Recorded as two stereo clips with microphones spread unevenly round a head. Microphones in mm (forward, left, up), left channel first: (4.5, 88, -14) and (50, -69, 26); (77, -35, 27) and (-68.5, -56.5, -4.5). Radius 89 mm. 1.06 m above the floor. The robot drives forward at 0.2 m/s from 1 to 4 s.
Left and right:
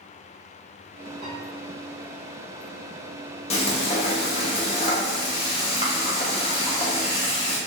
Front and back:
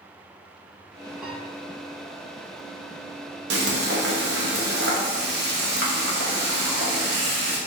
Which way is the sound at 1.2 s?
90° right.